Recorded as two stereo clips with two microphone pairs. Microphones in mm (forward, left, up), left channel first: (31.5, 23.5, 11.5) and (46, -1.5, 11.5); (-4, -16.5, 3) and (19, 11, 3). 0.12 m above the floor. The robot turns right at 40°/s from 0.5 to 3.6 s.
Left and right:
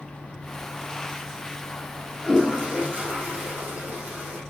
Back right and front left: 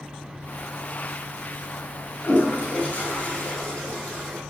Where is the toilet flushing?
140° right, 2 m; by 4.4 s 85° right, 2 m.